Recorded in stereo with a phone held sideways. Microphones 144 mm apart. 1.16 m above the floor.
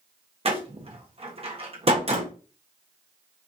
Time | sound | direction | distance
0.5 | a door slam | 45° right (ahead or behind) | 1.1 m